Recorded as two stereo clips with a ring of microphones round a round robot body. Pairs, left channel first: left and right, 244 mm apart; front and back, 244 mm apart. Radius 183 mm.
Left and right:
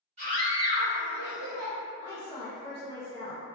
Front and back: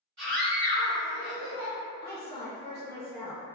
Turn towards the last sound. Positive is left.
turn(degrees=140)